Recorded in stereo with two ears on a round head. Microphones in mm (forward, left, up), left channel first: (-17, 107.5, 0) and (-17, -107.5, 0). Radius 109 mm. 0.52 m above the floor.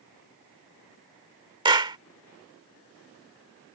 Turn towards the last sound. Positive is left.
turn(degrees=-20)  # may be behind; listen again after turning